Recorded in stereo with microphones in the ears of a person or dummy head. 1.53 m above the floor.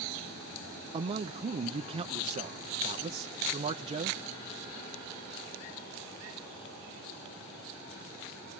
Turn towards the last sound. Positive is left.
turn(degrees=-25)  # may be behind; listen again after turning